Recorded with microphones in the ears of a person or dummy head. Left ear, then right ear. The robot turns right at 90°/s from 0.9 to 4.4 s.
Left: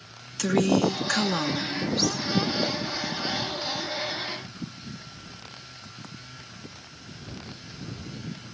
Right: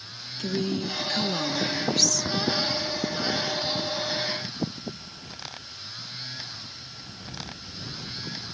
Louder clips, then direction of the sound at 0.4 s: Left 7 dB; 110° left.